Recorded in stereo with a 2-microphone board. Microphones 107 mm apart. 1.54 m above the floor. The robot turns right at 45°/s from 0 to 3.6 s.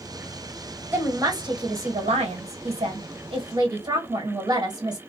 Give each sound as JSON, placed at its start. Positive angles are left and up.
{"t": 0.9, "sound": "a woman speaking", "azimuth_deg": -160, "distance_m": 1.3}